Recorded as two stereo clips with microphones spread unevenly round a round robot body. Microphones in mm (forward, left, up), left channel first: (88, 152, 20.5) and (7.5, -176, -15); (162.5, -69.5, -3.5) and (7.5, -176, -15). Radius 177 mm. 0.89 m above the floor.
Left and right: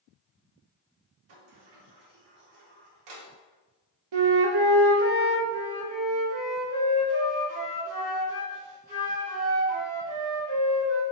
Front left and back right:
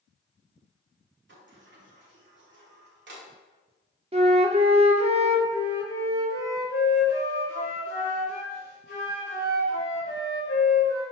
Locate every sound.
1.3 s a sliding door: 125° right, 1.6 m
4.1 s a flute: 85° right, 1.1 m
5.5 s a flute: 5° left, 2.5 m